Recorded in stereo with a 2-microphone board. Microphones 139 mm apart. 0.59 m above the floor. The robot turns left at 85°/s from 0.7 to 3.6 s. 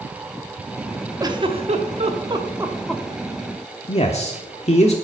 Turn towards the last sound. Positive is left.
turn(degrees=50)  # may be behind; listen again after turning